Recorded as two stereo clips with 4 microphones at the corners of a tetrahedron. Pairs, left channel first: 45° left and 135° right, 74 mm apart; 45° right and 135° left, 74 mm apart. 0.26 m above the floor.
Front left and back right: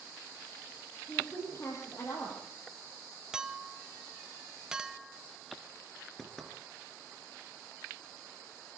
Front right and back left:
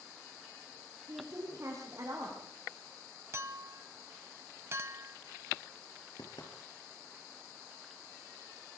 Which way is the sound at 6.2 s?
40° right.